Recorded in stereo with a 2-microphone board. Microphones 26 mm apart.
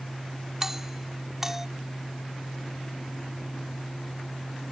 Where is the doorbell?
15° right (ahead or behind).